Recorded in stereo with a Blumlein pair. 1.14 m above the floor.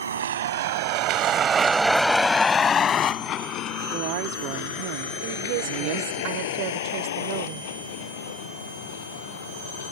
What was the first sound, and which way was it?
A vehicle, 70° right.